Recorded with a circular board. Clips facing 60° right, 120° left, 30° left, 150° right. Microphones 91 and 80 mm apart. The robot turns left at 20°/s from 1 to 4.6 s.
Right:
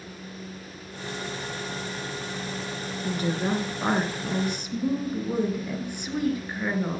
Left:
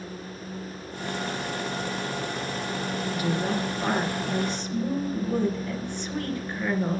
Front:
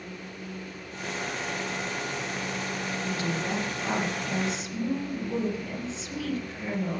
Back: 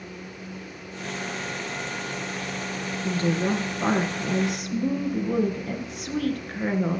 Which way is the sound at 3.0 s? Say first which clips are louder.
Right 2 dB, back 8 dB; 105° right.